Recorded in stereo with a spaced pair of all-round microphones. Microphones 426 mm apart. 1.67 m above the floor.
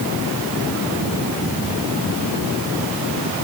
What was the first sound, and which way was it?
Only background noise.